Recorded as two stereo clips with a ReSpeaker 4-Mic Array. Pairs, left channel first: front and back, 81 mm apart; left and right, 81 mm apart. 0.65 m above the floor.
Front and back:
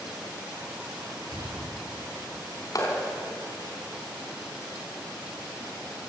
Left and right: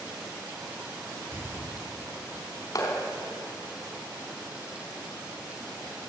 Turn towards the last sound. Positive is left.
turn(degrees=45)